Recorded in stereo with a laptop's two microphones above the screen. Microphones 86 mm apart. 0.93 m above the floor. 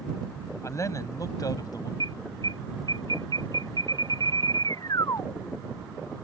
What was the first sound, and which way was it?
A man speaking, 35° left (ahead or behind).